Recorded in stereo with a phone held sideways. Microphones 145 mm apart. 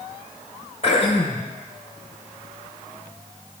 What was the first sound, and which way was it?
Throat clearing, 45° left (ahead or behind).